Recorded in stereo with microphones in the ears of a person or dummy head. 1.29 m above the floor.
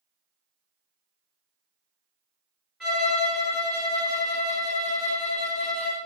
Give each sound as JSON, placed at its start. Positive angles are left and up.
{"t": 2.8, "sound": "a violin", "side_deg": 0, "distance_m": 1.3}